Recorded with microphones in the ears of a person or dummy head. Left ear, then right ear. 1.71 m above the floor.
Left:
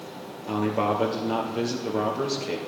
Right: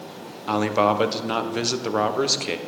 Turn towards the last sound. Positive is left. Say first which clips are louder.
# right 5 dB
turn(degrees=-55)  # may be behind; listen again after turning